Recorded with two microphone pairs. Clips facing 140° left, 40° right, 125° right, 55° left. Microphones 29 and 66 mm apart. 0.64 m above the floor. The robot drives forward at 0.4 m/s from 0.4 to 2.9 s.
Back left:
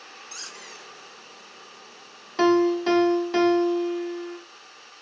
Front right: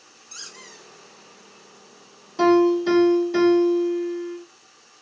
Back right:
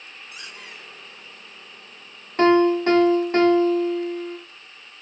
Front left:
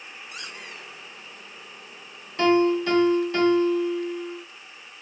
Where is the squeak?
50° left, 1.7 m; by 0.9 s 55° left, 1.6 m.